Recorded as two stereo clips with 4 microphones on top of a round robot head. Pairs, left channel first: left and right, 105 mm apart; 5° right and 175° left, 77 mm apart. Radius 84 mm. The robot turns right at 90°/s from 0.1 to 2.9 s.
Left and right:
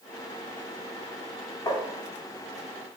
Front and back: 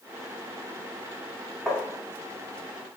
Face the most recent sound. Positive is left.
turn(degrees=-170)